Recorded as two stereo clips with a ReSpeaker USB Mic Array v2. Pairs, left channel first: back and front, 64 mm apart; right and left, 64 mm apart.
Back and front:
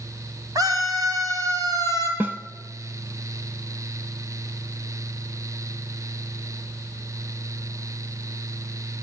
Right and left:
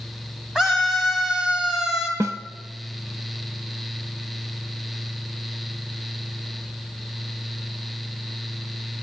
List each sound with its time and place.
0.6 s a scream: 5° left, 3 m
2.2 s a snare drum: 60° left, 1.1 m